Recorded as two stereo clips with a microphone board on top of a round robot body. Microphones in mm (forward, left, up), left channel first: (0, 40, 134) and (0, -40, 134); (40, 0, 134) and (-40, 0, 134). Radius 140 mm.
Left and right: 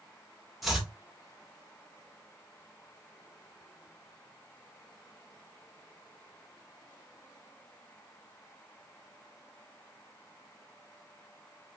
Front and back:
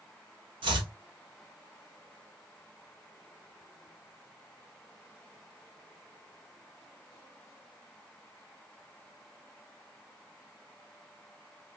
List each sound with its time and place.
0.6 s chopping: straight behind, 1.2 m